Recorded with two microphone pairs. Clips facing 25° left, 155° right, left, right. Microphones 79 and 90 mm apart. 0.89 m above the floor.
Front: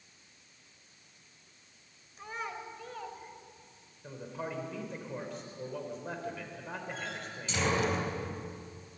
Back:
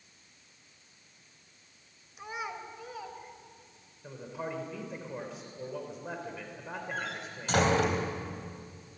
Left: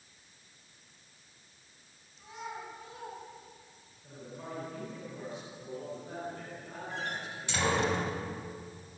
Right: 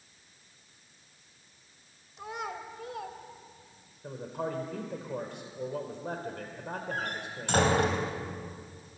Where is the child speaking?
75° right, 3.5 m; by 3.9 s 65° right, 4 m.